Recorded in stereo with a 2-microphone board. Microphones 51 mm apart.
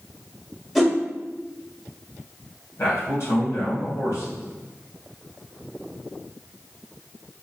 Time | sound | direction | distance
0.8 | a whoosh | 5° left (ahead or behind) | 1.5 m
2.8 | a man speaking | 55° left (ahead or behind) | 3 m